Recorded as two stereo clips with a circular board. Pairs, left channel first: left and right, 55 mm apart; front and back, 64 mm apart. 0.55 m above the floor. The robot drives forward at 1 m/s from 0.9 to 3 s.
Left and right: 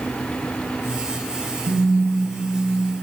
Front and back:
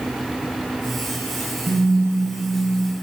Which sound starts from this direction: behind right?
A phone buzzing, at 1.7 s.